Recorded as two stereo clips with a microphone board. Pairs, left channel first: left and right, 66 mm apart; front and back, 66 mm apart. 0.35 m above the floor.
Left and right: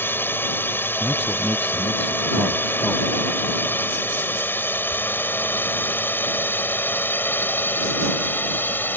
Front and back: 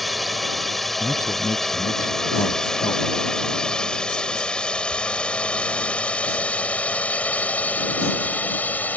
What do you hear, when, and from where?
0.0 s a drone: 90° left; by 9.0 s 50° left
1.0 s a man speaking: 15° left